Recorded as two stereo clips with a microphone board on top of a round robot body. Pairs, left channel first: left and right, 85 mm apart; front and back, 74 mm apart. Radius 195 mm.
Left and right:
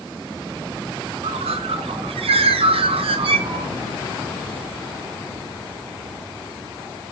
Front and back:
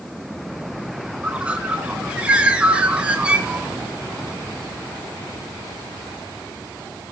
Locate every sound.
1.2 s a bird: 105° right, 0.8 m